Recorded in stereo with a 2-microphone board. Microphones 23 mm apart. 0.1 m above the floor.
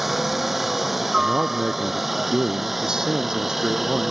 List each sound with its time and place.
0.0 s a helicopter: 10° right (ahead or behind); by 4.1 s 5° right (ahead or behind)
1.2 s a man speaking: 30° right (ahead or behind)